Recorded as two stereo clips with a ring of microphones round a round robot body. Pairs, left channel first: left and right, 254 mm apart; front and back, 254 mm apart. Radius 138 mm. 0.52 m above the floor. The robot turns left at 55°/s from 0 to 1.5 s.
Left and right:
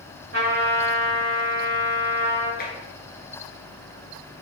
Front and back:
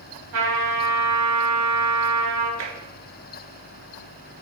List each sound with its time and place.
0.3 s a trumpet: 140° right, 2.5 m; by 2.5 s 155° left, 2.5 m
2.6 s tapping: 150° left, 1.6 m